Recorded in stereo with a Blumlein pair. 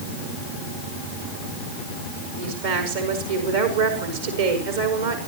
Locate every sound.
2.4 s a woman speaking: 60° right, 5.5 m